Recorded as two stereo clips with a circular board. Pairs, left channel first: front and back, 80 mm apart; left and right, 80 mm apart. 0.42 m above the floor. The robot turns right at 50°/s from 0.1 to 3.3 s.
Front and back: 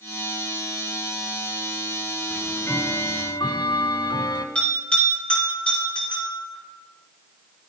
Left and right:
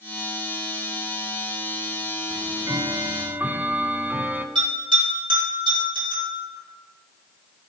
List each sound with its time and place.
2.3 s ticking: 70° right, 0.6 m; by 4.5 s 20° right, 0.6 m
4.5 s a bell: 75° right, 4.5 m